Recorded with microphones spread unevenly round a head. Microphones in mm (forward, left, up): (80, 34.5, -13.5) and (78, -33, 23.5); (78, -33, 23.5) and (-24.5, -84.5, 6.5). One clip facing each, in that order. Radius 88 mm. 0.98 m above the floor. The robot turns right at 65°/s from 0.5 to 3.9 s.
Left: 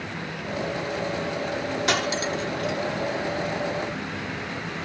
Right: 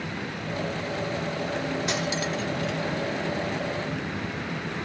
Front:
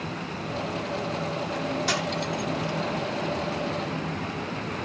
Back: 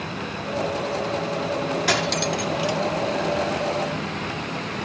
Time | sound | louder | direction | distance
1.9 | cutlery clinking | left 3 dB, back 5 dB | 145° left | ?